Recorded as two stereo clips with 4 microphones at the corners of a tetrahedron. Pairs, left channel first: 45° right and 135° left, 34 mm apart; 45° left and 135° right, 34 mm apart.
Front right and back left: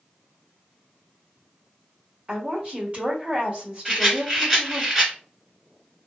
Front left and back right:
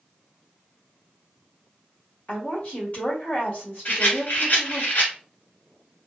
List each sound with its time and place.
2.3 s a woman speaking: 90° left, 1.6 m
3.9 s a rattle: 65° left, 1.2 m